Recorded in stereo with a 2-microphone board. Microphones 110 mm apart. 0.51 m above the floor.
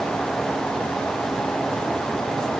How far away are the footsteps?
No footsteps in this recording.